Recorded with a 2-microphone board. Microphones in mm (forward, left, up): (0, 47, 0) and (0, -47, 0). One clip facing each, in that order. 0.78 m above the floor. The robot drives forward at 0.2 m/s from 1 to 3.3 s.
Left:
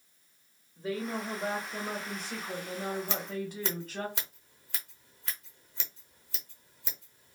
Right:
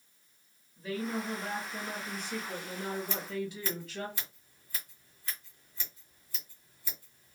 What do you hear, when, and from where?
0.8 s a woman speaking: 35° left (ahead or behind), 1.0 m; by 4.1 s 45° left (ahead or behind), 0.8 m
3.1 s scissors: 85° left, 0.7 m